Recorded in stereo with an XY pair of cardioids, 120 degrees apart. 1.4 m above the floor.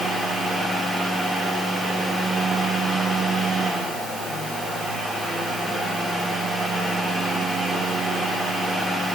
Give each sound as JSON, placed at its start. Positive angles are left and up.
{"t": 0.0, "sound": "a fan", "azimuth_deg": 0, "distance_m": 3.0}